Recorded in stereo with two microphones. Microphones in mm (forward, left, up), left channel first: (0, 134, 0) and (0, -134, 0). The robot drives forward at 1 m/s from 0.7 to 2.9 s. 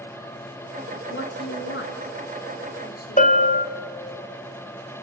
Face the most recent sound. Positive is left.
turn(degrees=30)  # may be behind; listen again after turning